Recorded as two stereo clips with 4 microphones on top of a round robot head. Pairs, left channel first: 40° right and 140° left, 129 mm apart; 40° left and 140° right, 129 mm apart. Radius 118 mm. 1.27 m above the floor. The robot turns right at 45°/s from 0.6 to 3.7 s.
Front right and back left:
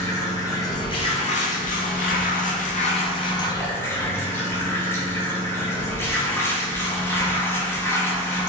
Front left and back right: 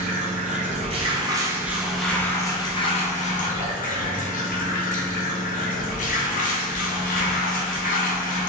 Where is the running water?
110° right, 0.8 m; by 8.5 s 30° left, 0.8 m.